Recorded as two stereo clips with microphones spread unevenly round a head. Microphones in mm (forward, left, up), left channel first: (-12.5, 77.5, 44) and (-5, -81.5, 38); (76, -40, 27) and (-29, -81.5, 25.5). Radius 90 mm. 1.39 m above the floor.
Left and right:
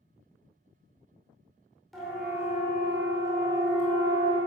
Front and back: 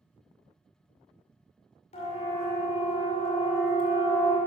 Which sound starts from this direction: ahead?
A siren, at 1.9 s.